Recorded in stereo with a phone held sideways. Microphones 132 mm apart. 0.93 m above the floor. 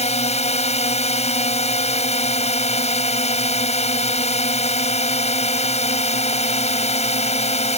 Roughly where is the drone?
Left.